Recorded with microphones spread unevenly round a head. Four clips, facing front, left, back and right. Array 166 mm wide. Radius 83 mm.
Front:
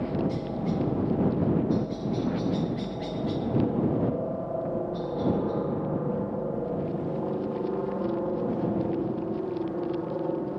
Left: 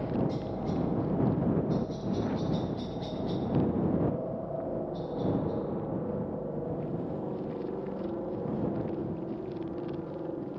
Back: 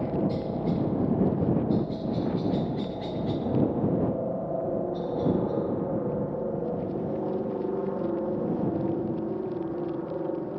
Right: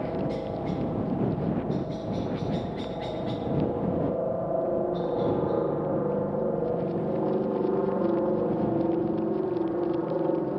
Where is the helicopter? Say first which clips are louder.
Right 2 dB, back 1 dB; 125° right; by 10.6 s 100° right.